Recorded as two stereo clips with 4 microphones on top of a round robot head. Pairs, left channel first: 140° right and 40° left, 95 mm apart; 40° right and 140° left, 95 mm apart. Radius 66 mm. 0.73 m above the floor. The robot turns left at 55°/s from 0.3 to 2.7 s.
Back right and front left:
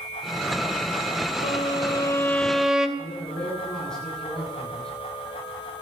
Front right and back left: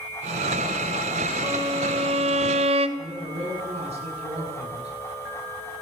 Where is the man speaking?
140° left, 9.5 m.